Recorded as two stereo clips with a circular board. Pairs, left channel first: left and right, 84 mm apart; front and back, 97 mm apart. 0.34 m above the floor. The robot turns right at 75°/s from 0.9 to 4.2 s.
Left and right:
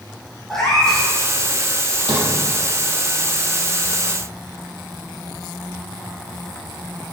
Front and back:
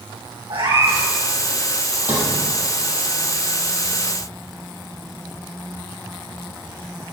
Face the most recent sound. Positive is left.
turn(degrees=50)